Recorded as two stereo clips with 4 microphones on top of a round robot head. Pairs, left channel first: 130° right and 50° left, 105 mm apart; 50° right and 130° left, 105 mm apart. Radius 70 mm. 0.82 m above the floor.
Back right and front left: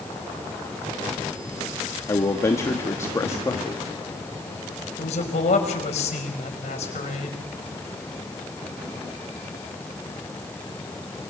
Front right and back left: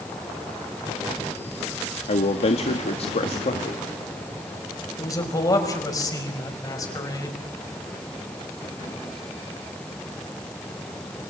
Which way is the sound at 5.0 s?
105° right.